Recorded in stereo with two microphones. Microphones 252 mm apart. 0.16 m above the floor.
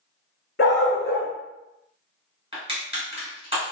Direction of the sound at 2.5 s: 25° right (ahead or behind).